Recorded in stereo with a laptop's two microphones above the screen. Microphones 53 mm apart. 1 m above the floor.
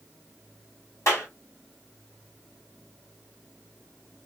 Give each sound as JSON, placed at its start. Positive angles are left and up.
{"t": 1.1, "sound": "a clap", "side_deg": 75, "distance_m": 2.0}